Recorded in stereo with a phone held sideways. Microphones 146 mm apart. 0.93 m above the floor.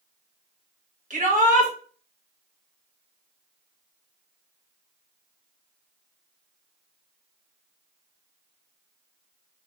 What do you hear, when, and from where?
1.1 s a shout: 60° right (ahead or behind), 1.2 m